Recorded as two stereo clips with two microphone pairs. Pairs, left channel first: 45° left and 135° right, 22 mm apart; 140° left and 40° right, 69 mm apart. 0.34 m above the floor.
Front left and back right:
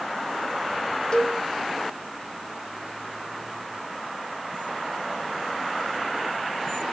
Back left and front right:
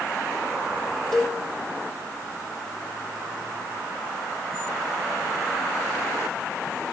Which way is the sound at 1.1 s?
60° left.